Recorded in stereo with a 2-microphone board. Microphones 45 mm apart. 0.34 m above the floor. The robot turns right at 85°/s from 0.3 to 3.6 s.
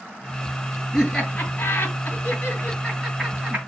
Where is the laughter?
5° right (ahead or behind), 3 m; by 3.6 s 35° right (ahead or behind), 3 m.